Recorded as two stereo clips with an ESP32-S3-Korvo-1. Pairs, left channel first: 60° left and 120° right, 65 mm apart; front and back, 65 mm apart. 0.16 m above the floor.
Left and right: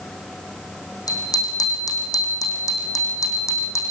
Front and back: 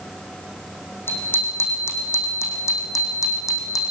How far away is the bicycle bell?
About 6 m.